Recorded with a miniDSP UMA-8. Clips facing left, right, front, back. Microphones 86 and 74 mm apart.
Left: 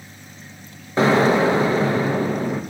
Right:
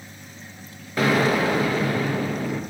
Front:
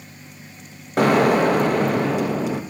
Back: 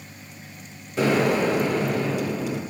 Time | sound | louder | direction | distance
1.0 | an explosion | left 4 dB, front 5 dB | 30° left | 0.6 m